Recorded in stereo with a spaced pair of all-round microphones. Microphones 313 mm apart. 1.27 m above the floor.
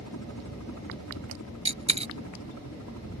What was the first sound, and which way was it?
A helicopter, 65° left (ahead or behind).